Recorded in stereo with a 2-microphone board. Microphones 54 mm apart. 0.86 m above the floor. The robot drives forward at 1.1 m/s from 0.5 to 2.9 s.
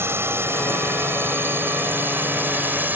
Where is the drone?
50° right (ahead or behind); by 3.0 s 35° right (ahead or behind).